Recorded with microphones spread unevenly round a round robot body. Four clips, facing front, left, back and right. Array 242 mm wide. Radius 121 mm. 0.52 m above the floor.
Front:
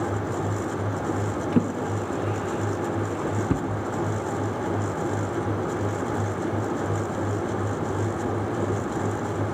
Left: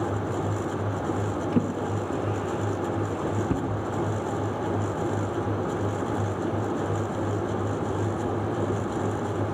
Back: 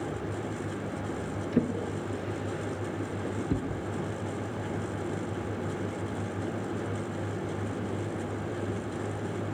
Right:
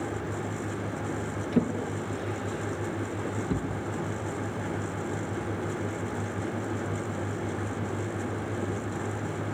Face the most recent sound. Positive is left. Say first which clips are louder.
# right 1 dB, front 3 dB
turn(degrees=15)